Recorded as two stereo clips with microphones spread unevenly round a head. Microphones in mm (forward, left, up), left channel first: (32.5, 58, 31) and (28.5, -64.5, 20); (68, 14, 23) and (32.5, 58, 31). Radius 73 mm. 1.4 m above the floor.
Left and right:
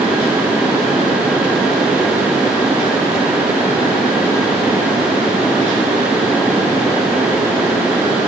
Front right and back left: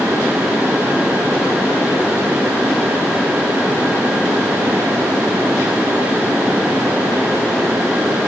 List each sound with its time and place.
Only background noise.